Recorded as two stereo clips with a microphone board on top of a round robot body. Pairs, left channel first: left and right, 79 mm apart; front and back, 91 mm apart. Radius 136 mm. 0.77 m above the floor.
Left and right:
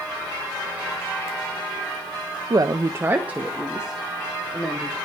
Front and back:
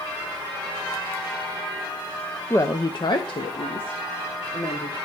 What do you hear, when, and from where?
2.5 s a woman speaking: 60° right, 0.7 m; by 5.0 s straight ahead, 2 m